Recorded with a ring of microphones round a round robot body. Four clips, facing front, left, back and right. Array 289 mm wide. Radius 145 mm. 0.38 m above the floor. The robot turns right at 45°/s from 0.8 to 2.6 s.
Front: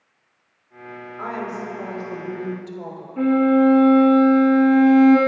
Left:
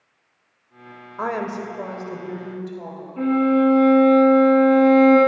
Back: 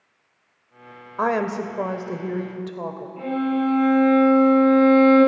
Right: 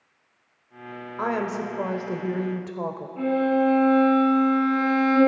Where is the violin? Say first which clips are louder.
Left 4 dB, front 8 dB; 25° left, 6.5 m.